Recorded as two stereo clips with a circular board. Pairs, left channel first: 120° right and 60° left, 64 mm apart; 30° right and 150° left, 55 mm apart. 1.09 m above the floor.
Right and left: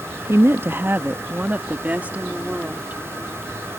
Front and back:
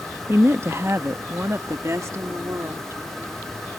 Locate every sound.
0.3 s a woman speaking: 110° left; by 3.0 s 130° left